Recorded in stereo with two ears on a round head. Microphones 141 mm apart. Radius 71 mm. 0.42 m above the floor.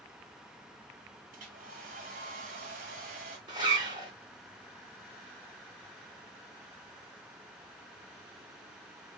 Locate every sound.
1.3 s a hair dryer: 55° right (ahead or behind), 1.5 m
3.5 s a zipper: 30° right (ahead or behind), 3 m